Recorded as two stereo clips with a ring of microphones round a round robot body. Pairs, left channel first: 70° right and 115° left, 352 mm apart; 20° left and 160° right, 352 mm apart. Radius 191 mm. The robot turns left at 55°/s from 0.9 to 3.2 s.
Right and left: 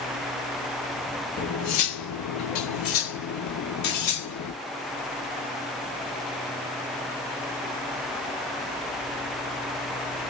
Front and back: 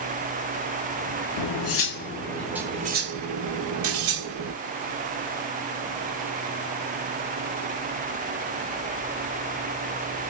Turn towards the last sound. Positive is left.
turn(degrees=-105)